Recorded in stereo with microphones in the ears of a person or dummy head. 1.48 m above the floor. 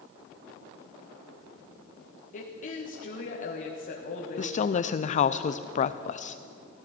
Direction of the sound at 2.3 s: 40° left (ahead or behind).